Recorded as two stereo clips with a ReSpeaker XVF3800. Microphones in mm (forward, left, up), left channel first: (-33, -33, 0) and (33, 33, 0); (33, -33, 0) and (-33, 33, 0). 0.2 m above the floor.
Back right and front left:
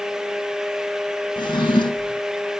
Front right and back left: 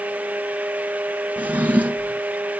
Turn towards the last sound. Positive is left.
turn(degrees=-155)